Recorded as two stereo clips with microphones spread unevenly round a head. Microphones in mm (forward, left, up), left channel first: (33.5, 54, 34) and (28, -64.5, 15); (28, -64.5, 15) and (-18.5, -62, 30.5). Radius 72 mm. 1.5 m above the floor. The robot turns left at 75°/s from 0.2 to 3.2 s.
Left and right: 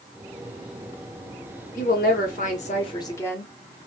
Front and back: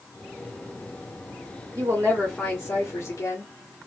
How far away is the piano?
No piano in this recording.